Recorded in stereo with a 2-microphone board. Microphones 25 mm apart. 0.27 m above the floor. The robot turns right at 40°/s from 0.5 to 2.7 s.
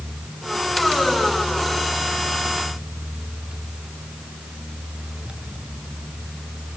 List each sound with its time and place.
Only background noise.